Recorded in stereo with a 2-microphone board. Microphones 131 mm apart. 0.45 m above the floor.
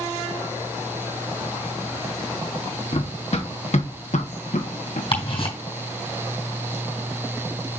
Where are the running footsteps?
50° left (ahead or behind), 1.6 m; by 5.0 s 75° left (ahead or behind), 1.7 m.